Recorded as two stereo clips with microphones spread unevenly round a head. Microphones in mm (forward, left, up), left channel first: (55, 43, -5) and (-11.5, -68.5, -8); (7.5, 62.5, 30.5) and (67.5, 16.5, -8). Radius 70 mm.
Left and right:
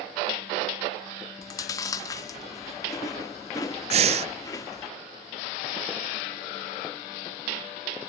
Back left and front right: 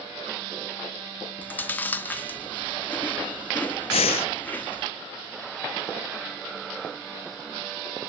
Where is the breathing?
170° right, 0.5 m.